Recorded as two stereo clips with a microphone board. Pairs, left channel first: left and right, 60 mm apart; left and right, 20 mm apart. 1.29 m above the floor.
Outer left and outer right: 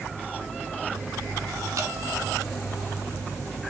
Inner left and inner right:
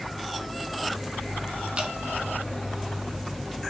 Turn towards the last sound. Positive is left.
turn(degrees=-65)  # may be behind; listen again after turning